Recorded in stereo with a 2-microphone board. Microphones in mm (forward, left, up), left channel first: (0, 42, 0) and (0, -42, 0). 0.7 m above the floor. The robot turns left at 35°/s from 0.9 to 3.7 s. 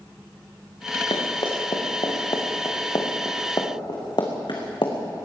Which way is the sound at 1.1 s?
80° left.